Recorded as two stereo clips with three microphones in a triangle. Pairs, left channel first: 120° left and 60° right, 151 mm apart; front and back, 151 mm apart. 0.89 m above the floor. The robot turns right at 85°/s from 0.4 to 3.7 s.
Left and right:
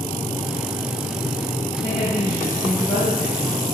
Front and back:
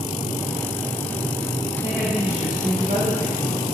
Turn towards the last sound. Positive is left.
turn(degrees=-145)